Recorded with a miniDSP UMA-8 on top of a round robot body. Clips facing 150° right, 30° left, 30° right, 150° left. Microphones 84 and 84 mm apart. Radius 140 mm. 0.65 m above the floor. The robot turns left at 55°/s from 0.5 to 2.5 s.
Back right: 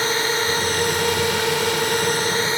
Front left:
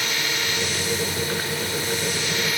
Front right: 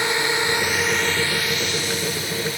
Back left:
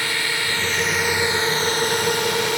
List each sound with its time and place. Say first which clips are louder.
0.0 s a drone: back right 6 dB, front right 3 dB; 100° right; by 2.6 s 150° left